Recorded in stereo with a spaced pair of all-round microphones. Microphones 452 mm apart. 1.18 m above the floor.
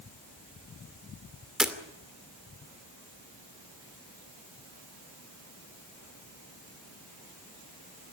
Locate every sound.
1.6 s breaking glass: centre (ahead or behind), 2.5 m